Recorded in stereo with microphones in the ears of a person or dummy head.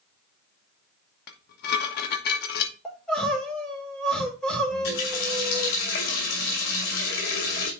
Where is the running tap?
65° left (ahead or behind), 2.5 m.